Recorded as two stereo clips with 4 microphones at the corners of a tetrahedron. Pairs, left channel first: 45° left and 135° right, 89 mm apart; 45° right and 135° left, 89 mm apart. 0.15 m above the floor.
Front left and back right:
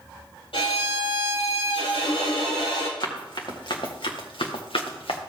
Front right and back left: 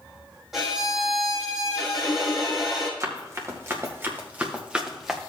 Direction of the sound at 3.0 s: 80° left.